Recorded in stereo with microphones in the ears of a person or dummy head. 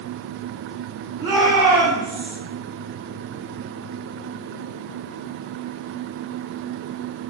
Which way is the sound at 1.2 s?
20° right (ahead or behind).